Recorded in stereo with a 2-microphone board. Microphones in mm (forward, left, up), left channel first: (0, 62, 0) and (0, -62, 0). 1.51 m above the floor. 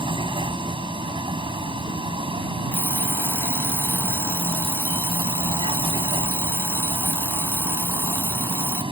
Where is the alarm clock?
20° left (ahead or behind).